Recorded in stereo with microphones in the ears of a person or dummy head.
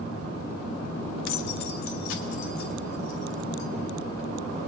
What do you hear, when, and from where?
1.3 s keys jangling: 75° left (ahead or behind), 1.0 m; by 3.7 s 85° left, 3 m